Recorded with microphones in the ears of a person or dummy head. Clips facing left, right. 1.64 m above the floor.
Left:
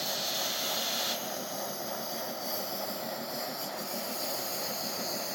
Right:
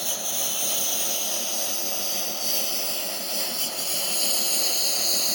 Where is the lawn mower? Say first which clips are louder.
Right 1 dB; 35° right (ahead or behind); by 5.3 s 45° right (ahead or behind).